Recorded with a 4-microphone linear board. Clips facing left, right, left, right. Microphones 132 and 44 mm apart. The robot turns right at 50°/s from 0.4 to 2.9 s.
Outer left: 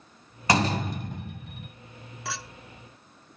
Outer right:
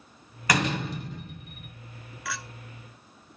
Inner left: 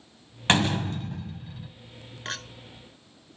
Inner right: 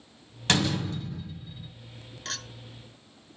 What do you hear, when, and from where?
0.5 s a door slam: 30° left, 1.7 m; by 1.7 s 90° left, 1.7 m
2.2 s a clink: 25° left (ahead or behind), 0.8 m; by 2.4 s 30° left (ahead or behind), 0.8 m